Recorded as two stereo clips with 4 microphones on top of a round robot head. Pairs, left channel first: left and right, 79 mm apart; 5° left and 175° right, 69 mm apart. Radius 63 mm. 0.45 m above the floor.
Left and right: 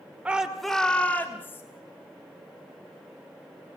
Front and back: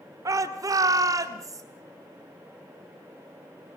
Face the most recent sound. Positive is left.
turn(degrees=150)